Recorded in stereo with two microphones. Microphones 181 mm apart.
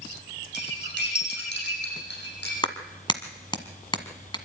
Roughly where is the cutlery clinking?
Left.